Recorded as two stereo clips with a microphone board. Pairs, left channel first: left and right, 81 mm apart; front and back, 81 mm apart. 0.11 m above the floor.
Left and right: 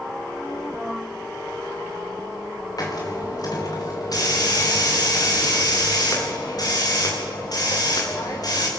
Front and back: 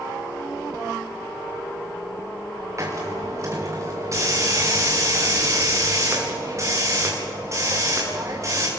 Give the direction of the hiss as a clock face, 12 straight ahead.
8 o'clock.